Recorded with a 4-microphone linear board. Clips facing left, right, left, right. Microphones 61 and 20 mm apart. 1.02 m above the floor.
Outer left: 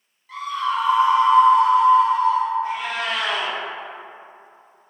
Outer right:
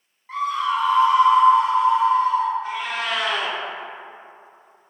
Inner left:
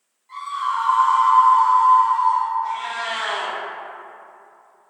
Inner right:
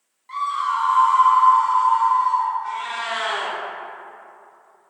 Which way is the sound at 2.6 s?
50° left (ahead or behind).